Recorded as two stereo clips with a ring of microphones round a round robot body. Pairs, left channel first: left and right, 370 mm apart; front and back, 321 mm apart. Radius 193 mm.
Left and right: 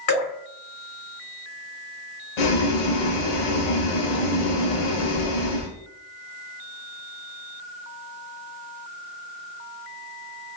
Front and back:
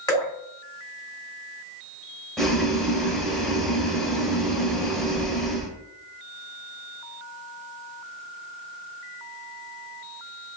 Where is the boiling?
90° left, 0.7 m.